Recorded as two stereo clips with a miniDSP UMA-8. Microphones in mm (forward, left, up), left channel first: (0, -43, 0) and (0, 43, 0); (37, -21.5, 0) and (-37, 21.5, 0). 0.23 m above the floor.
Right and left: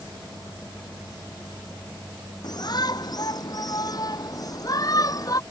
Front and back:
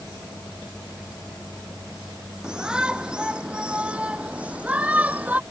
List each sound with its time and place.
2.4 s a shout: 130° right; by 5.4 s 140° right